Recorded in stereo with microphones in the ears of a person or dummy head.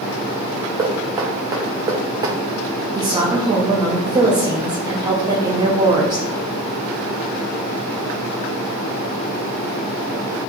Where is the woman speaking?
20° right (ahead or behind), 0.6 m.